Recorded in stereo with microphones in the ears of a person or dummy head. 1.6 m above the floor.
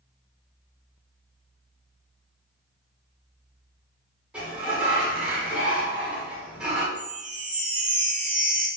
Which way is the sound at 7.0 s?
45° right (ahead or behind).